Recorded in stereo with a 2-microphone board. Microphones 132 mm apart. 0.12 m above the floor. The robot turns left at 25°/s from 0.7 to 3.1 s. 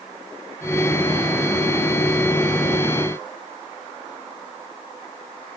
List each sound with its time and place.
Only background noise.